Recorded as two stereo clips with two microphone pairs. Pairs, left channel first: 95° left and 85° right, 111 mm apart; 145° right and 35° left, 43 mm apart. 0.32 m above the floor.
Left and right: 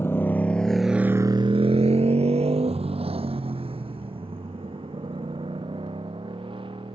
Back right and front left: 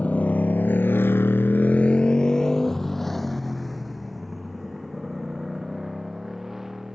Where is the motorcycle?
165° left; by 7.0 s 50° right.